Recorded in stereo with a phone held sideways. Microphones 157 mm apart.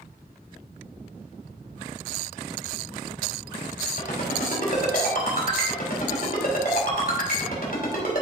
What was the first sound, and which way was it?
A ringtone, 65° left (ahead or behind).